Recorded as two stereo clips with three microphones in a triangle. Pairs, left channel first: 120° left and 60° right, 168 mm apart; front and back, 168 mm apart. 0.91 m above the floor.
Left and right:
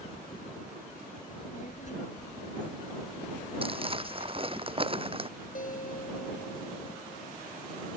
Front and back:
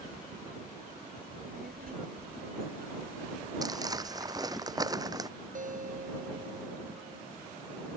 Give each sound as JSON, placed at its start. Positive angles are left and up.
{"t": 1.3, "sound": "a child speaking", "azimuth_deg": 160}
{"t": 3.6, "sound": "crumpling", "azimuth_deg": -115}
{"t": 5.5, "sound": "a guitar", "azimuth_deg": 150}